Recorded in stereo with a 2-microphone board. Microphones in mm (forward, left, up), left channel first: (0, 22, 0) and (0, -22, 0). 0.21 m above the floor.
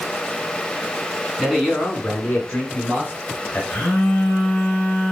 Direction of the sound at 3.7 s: 25° left (ahead or behind).